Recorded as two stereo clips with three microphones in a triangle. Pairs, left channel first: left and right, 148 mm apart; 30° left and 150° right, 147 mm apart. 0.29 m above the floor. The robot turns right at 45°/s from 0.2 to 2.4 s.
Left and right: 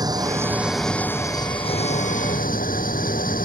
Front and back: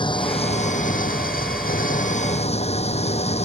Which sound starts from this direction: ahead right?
An engine running, at 0.0 s.